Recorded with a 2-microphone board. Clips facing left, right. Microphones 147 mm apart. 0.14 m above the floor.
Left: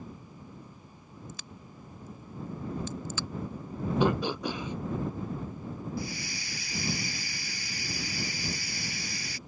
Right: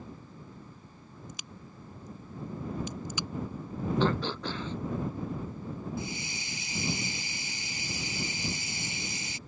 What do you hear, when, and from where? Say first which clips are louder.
1.3 s a crack: even; 15° right (ahead or behind)
4.0 s throat clearing: left 3 dB; 15° left (ahead or behind)
6.0 s a hiss: left 1 dB; 25° right (ahead or behind)